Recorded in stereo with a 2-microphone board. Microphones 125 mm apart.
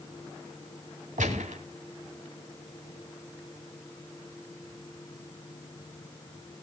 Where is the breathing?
No breathing in this recording.